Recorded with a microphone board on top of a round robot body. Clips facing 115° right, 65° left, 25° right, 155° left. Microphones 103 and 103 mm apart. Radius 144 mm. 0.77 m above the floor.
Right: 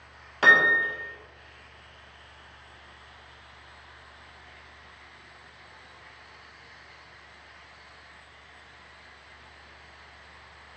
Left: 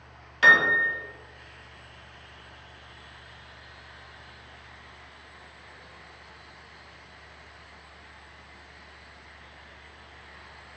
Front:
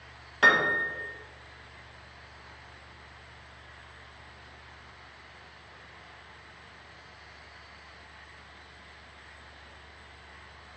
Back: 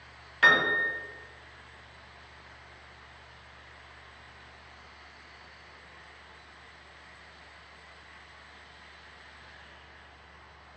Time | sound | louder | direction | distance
0.4 | a piano | even, even | 75° right | 1.0 m